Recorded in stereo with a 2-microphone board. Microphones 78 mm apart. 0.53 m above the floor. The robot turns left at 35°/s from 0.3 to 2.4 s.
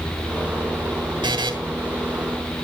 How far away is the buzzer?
About 2.5 m.